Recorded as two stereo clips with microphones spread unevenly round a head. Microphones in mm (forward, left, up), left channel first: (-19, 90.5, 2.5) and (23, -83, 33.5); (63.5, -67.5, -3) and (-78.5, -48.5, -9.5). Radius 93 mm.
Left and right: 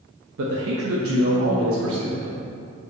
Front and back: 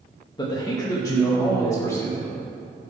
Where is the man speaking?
65° right, 1.2 m; by 2.4 s 80° right, 3 m.